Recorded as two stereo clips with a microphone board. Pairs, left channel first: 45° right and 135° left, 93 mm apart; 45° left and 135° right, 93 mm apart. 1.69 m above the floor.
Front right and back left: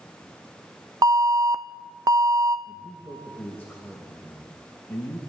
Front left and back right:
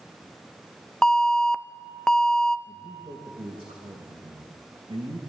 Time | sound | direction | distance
1.0 | an alarm | 125° left | 0.5 m
2.7 | a man speaking | 115° right | 2.5 m